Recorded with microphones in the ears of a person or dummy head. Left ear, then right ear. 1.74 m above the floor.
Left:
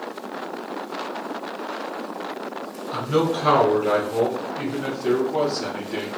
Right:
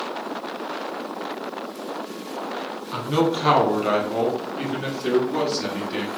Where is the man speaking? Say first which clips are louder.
Even; centre (ahead or behind), 1.2 m; by 6.1 s 35° right (ahead or behind), 3.5 m.